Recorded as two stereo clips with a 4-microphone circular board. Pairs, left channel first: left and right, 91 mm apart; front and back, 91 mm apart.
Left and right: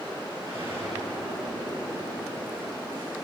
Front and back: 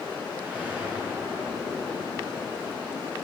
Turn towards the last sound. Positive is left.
turn(degrees=-105)